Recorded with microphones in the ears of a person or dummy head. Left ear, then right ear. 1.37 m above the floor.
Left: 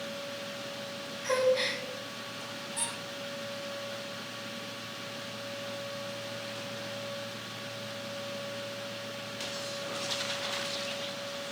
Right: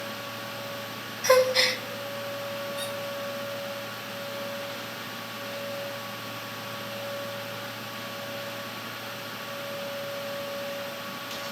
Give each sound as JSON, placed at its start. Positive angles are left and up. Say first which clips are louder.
{"t": 1.2, "sound": "a gasp", "louder": "right 7 dB", "side_deg": -65, "distance_m": 0.7}
{"t": 2.8, "sound": "a squeak", "louder": "right 4 dB", "side_deg": 45, "distance_m": 1.2}